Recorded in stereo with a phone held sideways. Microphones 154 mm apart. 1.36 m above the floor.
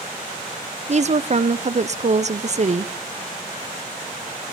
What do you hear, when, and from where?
0.9 s a woman speaking: 50° right (ahead or behind), 0.5 m